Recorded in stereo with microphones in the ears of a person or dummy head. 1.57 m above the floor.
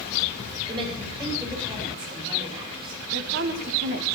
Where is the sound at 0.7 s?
30° right (ahead or behind), 7.5 m.